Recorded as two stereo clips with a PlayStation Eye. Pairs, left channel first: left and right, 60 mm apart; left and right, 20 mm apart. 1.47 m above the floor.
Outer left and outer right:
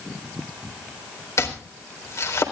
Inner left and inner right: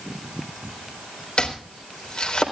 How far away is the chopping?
About 3.5 m.